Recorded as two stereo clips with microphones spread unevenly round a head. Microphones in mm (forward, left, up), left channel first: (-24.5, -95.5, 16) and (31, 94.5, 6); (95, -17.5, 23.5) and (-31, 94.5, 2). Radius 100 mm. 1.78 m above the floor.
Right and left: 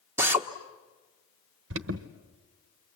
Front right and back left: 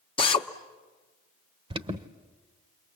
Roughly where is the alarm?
Left.